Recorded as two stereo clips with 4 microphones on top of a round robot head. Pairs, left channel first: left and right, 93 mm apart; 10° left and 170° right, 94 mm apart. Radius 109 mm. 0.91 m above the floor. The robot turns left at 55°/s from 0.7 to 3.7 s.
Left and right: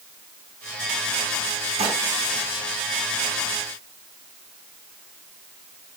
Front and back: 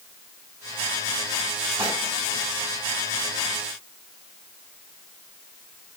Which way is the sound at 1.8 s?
100° right.